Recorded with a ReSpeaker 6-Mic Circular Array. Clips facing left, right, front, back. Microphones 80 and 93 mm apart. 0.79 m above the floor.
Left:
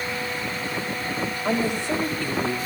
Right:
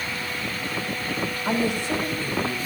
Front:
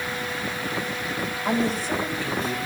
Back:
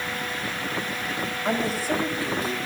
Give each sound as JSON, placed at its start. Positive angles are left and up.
{"t": 1.4, "sound": "a woman speaking", "azimuth_deg": 95, "distance_m": 4.0}